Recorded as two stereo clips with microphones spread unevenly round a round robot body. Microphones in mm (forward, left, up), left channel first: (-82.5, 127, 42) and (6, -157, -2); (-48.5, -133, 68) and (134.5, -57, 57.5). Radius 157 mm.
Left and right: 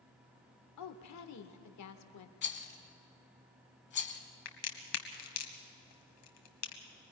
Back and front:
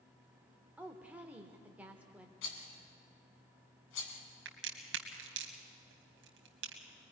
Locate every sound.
0.8 s a woman speaking: 100° left, 1.2 m
2.4 s a rattle: 165° left, 1.3 m
4.5 s a crack: 60° left, 1.4 m